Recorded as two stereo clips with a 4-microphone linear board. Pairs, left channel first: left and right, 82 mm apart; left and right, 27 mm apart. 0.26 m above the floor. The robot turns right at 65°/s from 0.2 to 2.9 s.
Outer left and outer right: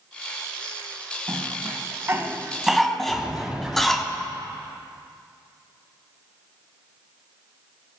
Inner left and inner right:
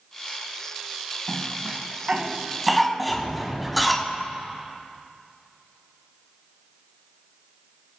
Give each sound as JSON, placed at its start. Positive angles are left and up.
{"t": 1.3, "sound": "a cough", "side_deg": -50, "distance_m": 2.0}
{"t": 3.1, "sound": "a sliding door", "side_deg": -10, "distance_m": 4.0}